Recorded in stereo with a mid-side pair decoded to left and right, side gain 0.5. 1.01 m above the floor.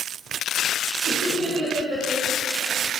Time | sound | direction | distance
1.1 | laughter | 50° right | 2 m